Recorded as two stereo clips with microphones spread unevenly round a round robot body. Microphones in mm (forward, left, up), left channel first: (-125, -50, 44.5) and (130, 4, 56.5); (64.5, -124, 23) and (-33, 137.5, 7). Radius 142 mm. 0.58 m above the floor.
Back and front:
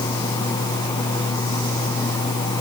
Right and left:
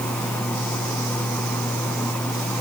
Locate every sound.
Only background noise.